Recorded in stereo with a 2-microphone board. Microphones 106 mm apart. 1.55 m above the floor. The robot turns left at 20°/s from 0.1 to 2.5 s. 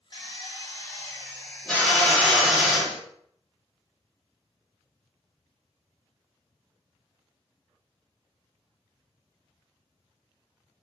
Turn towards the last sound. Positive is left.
turn(degrees=-5)